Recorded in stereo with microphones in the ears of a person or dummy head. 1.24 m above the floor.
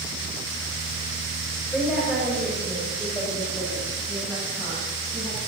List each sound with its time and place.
1.7 s a woman speaking: centre (ahead or behind), 5 m; by 5.4 s 10° right (ahead or behind), 8 m